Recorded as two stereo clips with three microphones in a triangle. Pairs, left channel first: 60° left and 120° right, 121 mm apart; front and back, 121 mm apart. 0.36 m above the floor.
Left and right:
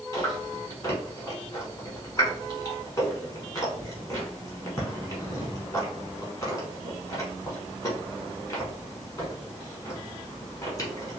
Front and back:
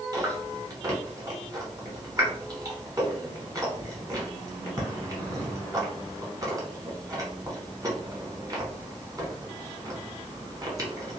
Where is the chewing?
120° left, 1.2 m.